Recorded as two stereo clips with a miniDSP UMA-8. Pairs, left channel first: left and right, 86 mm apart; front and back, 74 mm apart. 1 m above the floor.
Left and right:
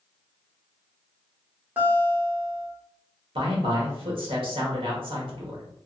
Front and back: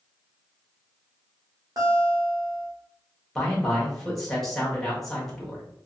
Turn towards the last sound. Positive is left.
turn(degrees=-85)